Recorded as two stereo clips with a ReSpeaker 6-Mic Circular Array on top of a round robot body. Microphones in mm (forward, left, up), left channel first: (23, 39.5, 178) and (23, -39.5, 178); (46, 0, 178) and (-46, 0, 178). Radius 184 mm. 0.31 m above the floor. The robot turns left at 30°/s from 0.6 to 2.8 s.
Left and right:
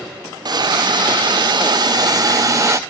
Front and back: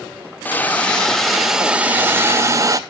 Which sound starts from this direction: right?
A hiss, at 0.5 s.